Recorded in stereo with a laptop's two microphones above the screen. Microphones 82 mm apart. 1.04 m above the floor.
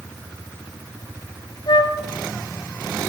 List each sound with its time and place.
1.7 s a flute: 65° left (ahead or behind), 0.6 m